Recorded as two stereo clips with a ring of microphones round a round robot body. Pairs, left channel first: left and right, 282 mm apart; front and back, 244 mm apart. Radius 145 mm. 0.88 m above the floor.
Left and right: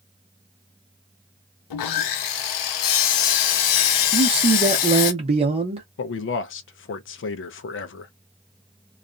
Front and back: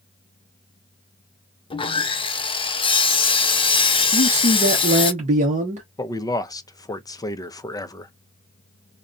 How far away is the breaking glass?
I don't hear breaking glass.